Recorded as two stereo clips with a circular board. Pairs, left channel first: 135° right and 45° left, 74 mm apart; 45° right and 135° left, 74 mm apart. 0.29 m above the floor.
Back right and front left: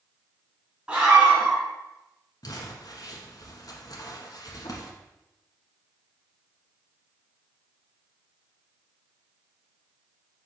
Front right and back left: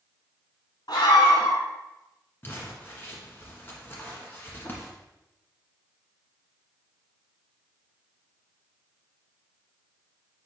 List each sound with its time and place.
0.9 s a scream: 30° right, 2.5 m
2.4 s crumpling: 105° right, 1.3 m